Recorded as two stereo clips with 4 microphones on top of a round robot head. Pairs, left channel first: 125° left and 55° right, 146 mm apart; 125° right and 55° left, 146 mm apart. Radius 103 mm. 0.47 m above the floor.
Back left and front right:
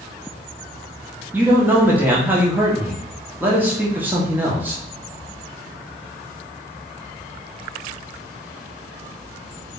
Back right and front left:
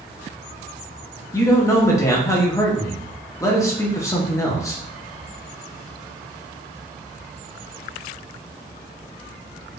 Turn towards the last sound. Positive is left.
turn(degrees=-110)